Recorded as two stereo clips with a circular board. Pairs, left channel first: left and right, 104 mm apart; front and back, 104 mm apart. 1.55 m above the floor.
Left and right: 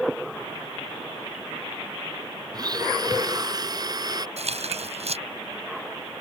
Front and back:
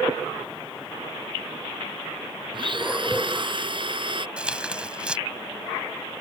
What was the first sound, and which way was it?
A blender, 140° right.